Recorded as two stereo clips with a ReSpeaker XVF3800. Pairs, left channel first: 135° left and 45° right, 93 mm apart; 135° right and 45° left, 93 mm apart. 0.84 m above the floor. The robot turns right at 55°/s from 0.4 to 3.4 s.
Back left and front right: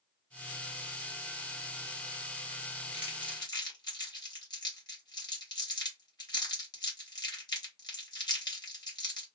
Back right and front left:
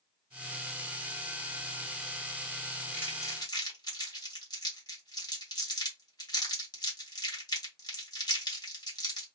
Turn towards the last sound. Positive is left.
turn(degrees=180)